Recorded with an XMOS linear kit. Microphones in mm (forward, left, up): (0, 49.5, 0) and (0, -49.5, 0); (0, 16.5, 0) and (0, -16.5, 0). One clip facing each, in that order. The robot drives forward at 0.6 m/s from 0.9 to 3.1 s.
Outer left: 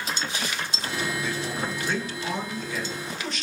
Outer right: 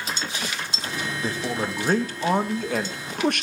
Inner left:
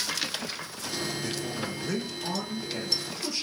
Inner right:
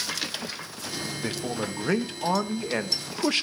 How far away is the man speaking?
About 2 m.